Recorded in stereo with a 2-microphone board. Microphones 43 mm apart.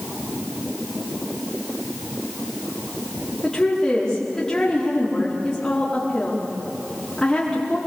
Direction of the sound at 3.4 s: 20° left (ahead or behind).